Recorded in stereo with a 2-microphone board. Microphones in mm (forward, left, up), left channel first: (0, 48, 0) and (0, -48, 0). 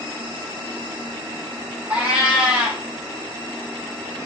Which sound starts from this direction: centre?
A cat meowing, at 1.9 s.